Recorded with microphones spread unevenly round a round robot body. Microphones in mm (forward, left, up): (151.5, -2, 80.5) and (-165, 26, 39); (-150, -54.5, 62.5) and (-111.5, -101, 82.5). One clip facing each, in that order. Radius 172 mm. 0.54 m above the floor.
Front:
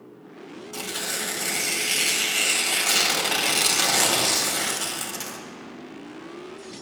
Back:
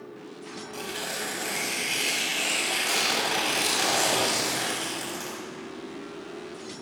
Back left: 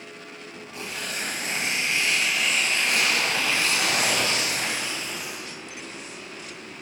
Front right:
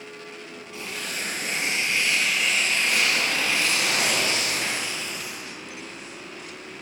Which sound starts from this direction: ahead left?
Tearing paper, at 0.7 s.